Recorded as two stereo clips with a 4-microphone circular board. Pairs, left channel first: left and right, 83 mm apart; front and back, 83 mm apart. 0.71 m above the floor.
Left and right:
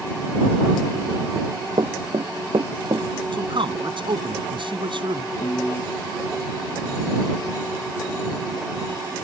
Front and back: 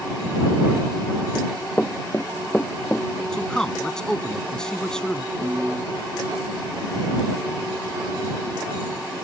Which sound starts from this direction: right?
A man speaking, at 3.3 s.